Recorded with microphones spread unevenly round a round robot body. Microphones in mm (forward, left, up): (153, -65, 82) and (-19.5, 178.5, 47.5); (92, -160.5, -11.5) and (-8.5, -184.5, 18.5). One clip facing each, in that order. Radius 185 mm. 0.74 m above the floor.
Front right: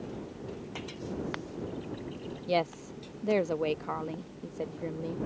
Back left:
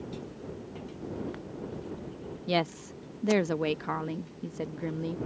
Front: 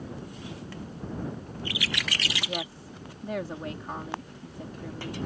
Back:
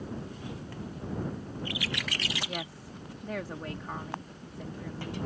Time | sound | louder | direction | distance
2.5 | a woman speaking | back left 1 dB, front 3 dB | 80° left | ?